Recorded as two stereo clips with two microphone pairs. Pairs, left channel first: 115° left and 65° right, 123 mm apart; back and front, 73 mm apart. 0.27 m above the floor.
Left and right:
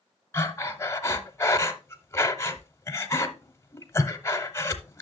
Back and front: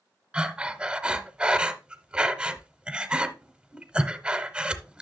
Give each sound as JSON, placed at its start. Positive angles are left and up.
{"t": 0.3, "sound": "breathing", "azimuth_deg": 65, "distance_m": 0.8}